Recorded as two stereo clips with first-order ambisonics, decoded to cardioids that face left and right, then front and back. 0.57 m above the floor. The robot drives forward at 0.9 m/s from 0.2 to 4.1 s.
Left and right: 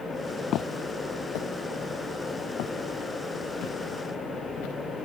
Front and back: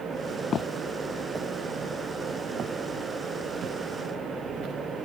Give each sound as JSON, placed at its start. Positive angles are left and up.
{"t": 0.5, "sound": "footsteps", "azimuth_deg": 55}